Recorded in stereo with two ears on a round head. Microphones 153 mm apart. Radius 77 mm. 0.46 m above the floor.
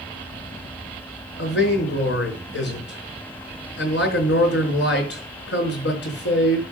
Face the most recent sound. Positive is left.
turn(degrees=80)